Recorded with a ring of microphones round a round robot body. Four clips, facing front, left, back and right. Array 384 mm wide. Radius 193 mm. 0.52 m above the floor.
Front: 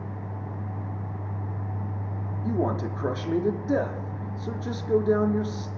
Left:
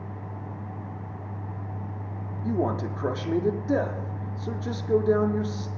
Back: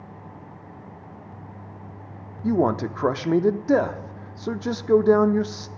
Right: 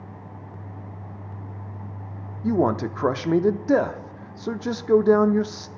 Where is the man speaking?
135° right, 0.9 m.